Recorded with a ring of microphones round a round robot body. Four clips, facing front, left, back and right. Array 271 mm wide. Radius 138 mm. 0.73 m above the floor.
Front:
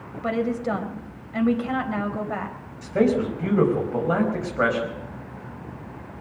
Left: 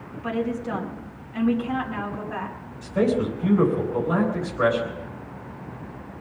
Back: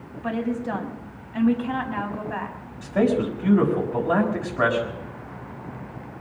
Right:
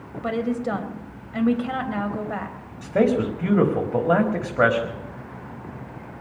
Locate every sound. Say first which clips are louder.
0.2 s a woman speaking: right 2 dB, front 2 dB; 40° right, 4 m
2.8 s a man speaking: right 2 dB, even; 75° right, 5 m